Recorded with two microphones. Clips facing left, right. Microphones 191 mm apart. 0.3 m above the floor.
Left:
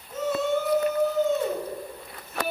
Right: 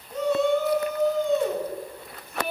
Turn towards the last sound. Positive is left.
turn(degrees=5)  # may be behind; listen again after turning